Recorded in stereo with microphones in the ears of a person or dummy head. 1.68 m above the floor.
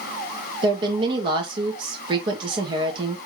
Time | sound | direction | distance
0.6 | a woman speaking | 25° right (ahead or behind) | 1.9 m